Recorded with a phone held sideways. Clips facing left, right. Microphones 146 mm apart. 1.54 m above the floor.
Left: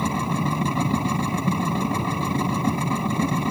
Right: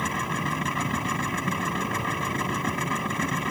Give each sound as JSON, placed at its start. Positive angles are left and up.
{"t": 0.0, "sound": "a machine running", "side_deg": 30}